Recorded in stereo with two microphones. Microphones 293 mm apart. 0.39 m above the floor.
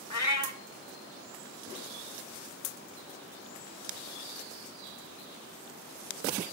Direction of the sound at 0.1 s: 60° left (ahead or behind).